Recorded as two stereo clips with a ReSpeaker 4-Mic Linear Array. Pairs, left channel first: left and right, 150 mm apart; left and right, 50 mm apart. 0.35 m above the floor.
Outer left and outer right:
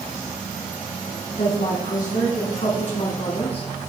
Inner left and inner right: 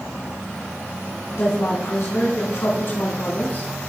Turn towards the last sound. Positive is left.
turn(degrees=40)  # may be behind; listen again after turning